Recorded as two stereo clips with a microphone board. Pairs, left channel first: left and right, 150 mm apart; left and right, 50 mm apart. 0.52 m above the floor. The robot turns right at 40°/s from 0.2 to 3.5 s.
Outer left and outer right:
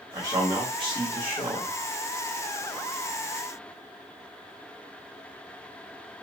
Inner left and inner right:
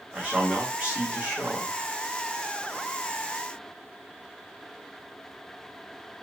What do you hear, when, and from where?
0.1 s a man speaking: 130° right, 1.3 m; by 1.7 s 70° right, 1.3 m